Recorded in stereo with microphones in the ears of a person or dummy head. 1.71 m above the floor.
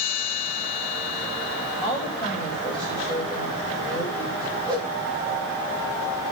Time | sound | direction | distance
1.8 | a woman speaking | 5° left (ahead or behind) | 7 m
4.7 | a whoosh | 20° right (ahead or behind) | 3 m